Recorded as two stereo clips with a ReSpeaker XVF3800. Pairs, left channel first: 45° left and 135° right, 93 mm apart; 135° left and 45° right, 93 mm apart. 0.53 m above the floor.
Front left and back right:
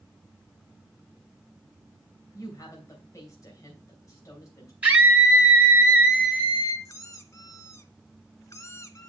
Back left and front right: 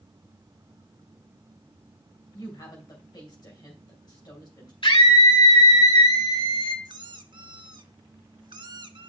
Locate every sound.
2.3 s a woman speaking: 95° left, 2.5 m
4.8 s a scream: 150° left, 2.5 m
6.8 s a squeak: 10° right, 0.6 m